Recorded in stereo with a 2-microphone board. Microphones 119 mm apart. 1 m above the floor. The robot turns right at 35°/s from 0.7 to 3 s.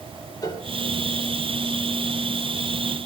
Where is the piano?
30° left (ahead or behind), 3 m.